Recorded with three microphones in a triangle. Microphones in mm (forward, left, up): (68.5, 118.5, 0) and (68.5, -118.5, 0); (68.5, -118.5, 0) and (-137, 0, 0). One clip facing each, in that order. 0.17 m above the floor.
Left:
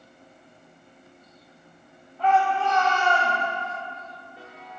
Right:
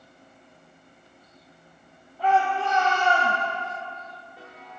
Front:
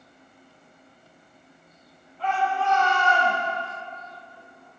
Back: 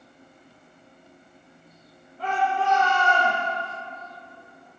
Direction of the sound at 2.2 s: 160° right.